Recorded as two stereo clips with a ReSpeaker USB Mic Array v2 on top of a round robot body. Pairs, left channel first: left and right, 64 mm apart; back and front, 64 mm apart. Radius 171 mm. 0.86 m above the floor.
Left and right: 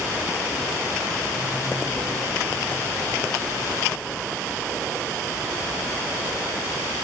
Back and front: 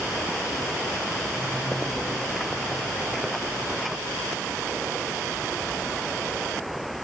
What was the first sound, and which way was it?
Only background noise.